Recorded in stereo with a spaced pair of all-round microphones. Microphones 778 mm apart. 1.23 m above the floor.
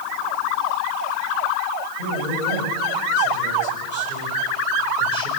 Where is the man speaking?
85° left, 7.5 m; by 5.3 s 80° left, 5.5 m.